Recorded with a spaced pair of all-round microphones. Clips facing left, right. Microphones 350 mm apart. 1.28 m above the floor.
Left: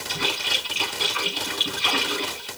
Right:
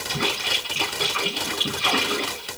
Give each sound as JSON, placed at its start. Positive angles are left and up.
{"t": 0.1, "sound": "a splash", "side_deg": -65, "distance_m": 5.5}